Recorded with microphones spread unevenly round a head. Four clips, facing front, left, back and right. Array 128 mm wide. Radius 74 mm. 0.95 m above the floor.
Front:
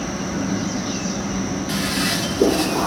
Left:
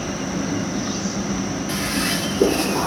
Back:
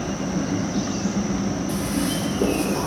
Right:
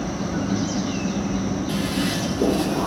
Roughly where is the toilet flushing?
Ahead left.